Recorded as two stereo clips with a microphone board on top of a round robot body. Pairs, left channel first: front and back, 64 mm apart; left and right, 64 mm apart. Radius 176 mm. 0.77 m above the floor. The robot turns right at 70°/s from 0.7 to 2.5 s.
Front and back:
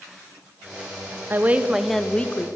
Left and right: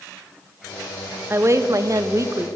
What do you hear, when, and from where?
1.3 s a woman speaking: 135° right, 1.5 m; by 2.5 s 50° right, 1.5 m